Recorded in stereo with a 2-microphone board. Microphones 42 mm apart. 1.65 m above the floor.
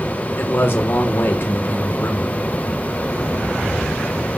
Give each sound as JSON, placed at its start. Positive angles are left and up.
{"t": 0.4, "sound": "a man speaking", "side_deg": 70, "distance_m": 1.5}